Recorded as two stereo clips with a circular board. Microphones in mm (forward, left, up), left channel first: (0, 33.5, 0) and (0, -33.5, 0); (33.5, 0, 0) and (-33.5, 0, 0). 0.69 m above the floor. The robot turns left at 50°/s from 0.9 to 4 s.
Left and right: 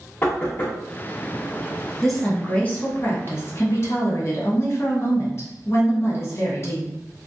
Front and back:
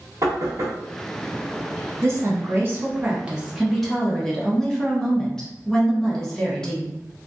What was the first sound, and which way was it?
Knocking, 145° left.